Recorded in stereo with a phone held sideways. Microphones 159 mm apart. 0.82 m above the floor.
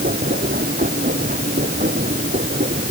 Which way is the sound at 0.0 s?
90° right.